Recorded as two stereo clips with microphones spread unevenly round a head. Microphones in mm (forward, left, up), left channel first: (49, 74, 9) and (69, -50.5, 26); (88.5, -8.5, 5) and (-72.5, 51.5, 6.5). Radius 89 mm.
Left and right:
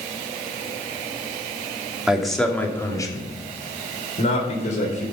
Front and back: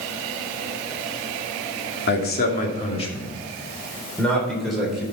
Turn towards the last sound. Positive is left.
turn(degrees=75)